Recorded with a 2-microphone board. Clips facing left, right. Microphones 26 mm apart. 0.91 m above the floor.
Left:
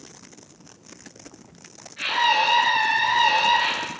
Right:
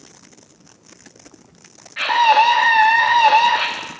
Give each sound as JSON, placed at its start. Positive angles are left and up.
{"t": 2.0, "sound": "a scream", "side_deg": -60, "distance_m": 1.2}